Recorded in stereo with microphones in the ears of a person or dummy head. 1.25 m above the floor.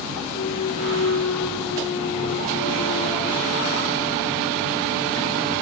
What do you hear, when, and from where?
0.3 s a clunk: 50° left (ahead or behind), 0.9 m